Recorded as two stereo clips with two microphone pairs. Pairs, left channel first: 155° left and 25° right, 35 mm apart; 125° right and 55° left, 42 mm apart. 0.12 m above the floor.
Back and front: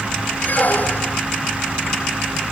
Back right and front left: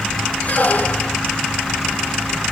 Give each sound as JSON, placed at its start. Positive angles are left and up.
{"t": 0.4, "sound": "a squeak", "azimuth_deg": -175}